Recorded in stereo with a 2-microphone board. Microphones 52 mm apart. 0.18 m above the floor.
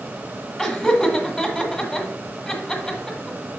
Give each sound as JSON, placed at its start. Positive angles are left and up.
{"t": 0.6, "sound": "laughter", "side_deg": 5, "distance_m": 1.3}